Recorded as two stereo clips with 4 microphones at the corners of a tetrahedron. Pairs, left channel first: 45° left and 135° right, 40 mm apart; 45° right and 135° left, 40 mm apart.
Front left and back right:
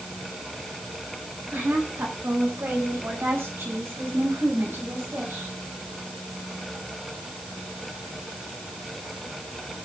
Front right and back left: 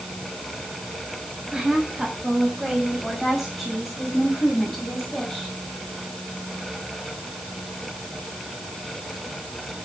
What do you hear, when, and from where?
1.5 s a woman speaking: 150° right, 7.5 m; by 5.5 s 125° right, 7 m